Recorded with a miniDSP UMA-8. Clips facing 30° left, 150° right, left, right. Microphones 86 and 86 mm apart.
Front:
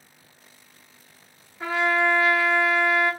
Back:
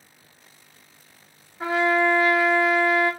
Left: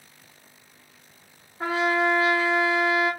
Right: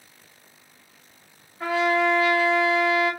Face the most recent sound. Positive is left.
turn(degrees=145)